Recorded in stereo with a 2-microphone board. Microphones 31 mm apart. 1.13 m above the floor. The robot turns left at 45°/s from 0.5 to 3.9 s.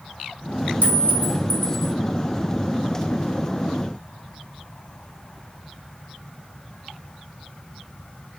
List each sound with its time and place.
0.8 s a clink: 55° right, 1.2 m; by 1.9 s 105° right, 1.2 m